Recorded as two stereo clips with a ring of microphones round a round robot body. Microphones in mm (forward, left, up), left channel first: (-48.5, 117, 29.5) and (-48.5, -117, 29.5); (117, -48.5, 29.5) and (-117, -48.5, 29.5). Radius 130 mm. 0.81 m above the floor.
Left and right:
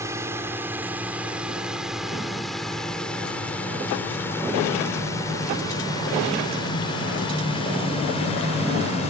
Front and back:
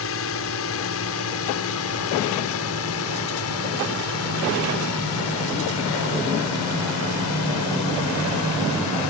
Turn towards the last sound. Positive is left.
turn(degrees=25)